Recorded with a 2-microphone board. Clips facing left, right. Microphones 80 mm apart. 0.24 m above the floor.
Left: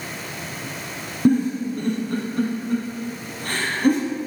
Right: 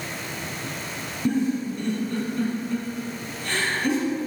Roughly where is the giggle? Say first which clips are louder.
Left 5 dB; left.